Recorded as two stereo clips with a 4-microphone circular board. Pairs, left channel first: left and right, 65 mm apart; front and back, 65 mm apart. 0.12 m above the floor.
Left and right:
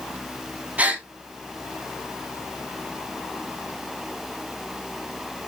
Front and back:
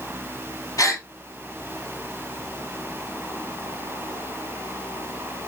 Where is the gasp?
25° right, 0.6 m.